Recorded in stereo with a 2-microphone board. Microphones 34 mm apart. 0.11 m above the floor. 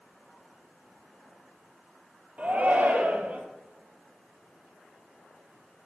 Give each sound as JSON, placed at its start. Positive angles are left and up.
{"t": 2.4, "sound": "a shout", "side_deg": -40, "distance_m": 2.0}